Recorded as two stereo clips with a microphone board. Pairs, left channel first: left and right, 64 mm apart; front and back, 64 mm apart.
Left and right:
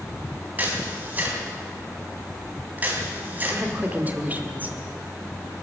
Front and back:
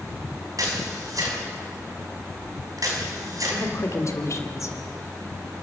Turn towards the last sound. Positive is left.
turn(degrees=-30)